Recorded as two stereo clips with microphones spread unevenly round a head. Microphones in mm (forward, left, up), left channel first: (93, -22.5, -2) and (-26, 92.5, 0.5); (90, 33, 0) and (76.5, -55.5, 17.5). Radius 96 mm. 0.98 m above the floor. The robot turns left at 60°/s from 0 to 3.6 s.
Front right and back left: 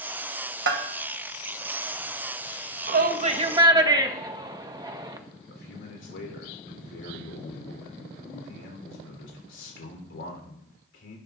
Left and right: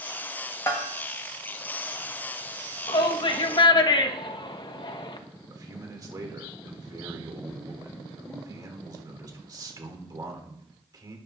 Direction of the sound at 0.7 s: 145° left.